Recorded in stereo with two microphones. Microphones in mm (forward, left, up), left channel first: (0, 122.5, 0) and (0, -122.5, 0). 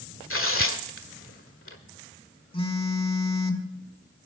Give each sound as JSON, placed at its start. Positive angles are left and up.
{"t": 0.3, "sound": "tearing paper", "side_deg": 60, "distance_m": 1.6}
{"t": 2.5, "sound": "a phone buzzing", "side_deg": 20, "distance_m": 1.5}